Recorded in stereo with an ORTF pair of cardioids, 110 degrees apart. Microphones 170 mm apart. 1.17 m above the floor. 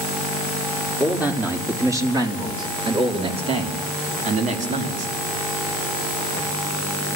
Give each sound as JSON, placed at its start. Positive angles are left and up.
{"t": 1.0, "sound": "a man speaking", "azimuth_deg": -5, "distance_m": 3.0}